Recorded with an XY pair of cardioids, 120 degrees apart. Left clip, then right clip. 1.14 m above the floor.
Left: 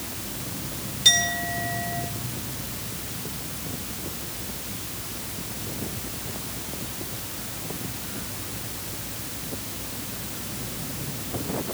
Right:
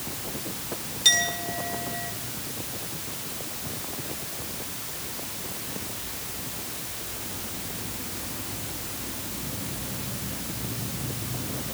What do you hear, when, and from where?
1.1 s a clink: 10° right, 8 m